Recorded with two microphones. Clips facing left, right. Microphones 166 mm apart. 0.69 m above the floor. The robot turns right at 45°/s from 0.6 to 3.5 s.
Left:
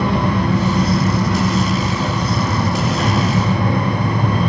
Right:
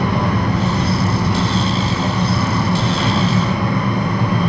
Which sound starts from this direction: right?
An engine running, at 0.0 s.